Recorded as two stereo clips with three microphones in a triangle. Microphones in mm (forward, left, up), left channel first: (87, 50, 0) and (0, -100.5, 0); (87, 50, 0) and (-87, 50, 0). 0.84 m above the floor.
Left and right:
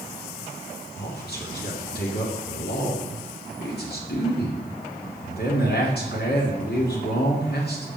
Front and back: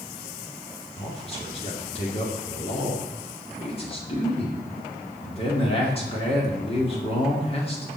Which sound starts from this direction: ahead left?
A man speaking, at 1.0 s.